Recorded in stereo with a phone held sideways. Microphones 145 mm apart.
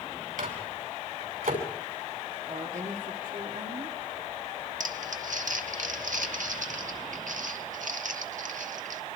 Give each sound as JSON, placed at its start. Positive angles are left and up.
{"t": 0.4, "sound": "a microwave", "side_deg": -80, "distance_m": 5.5}
{"t": 2.5, "sound": "a woman speaking", "side_deg": -75, "distance_m": 2.5}
{"t": 4.8, "sound": "crumpling", "side_deg": -70, "distance_m": 1.6}